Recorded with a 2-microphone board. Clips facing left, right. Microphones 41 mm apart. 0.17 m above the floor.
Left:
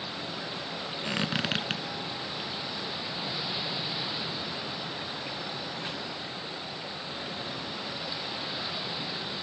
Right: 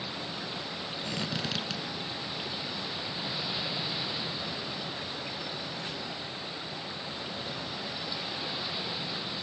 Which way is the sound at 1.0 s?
45° left (ahead or behind).